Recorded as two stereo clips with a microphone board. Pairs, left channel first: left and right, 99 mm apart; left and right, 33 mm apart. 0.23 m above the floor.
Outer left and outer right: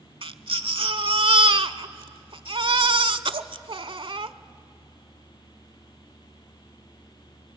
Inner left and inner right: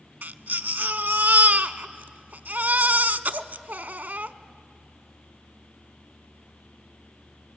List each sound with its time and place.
0.2 s a baby crying: 60° right (ahead or behind), 0.7 m